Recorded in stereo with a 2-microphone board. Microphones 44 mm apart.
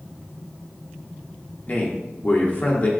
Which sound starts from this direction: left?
A man speaking, at 1.7 s.